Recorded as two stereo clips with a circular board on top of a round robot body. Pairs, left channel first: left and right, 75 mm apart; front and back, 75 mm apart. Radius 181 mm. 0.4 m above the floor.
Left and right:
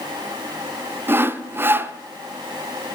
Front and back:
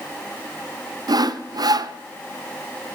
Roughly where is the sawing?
Behind right.